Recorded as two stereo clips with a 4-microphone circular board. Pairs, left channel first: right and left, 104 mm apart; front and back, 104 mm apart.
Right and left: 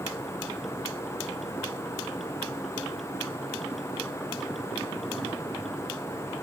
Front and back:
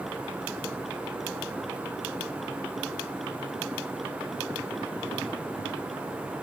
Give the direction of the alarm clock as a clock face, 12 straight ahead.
No alarm clock in this recording.